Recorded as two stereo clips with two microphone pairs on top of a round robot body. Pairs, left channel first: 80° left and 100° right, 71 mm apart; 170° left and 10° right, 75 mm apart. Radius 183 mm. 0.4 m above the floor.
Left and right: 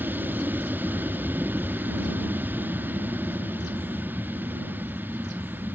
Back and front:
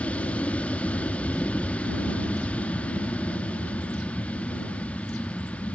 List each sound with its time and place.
0.0 s an aircraft: 130° right